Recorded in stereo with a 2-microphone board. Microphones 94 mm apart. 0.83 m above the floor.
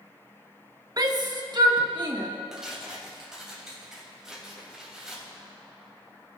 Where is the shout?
40° right (ahead or behind), 0.9 m; by 2.3 s 50° right (ahead or behind), 1.8 m.